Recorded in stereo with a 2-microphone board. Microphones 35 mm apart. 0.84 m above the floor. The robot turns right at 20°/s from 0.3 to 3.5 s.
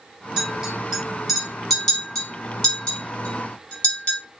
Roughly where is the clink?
Right.